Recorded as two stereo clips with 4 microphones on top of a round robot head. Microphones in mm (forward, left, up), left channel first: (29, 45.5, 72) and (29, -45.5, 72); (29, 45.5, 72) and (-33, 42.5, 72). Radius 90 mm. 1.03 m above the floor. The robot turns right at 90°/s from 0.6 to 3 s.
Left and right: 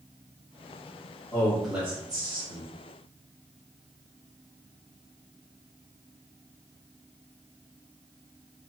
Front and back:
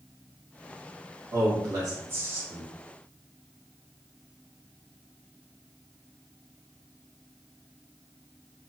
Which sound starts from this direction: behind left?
A man speaking, at 1.3 s.